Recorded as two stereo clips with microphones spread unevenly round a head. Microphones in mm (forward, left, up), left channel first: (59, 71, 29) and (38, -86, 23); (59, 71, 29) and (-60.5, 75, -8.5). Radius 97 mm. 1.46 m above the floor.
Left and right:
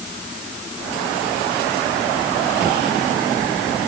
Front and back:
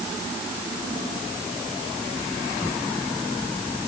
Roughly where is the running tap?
I don't hear a running tap.